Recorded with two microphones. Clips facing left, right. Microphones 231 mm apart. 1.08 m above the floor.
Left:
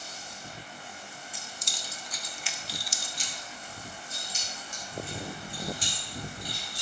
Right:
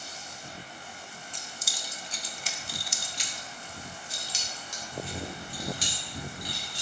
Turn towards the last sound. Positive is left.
turn(degrees=-85)